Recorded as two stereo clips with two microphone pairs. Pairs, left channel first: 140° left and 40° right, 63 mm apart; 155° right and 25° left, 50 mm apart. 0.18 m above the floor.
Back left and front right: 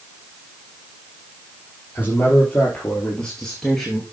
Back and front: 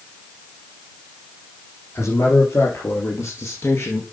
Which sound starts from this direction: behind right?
A man speaking, at 1.9 s.